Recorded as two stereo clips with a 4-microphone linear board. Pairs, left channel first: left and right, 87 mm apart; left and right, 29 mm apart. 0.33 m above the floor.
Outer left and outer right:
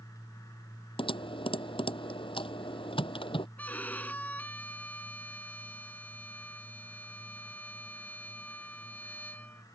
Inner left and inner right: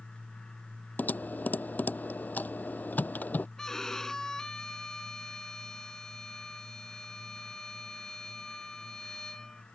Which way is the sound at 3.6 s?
20° left (ahead or behind).